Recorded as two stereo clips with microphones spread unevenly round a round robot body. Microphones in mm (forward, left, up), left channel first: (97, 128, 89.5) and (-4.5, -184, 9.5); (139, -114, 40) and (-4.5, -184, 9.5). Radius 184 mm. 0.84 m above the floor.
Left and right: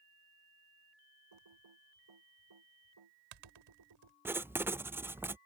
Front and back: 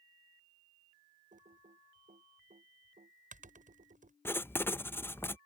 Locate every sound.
1.3 s typing on a keyboard: 115° right
4.2 s writing: 60° right